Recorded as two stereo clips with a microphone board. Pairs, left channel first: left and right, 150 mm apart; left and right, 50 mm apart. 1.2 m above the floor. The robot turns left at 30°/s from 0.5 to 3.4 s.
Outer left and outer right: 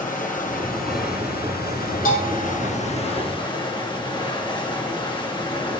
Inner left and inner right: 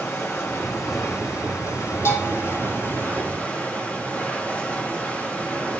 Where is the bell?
75° left (ahead or behind), 4 m; by 2.5 s 85° left, 4 m.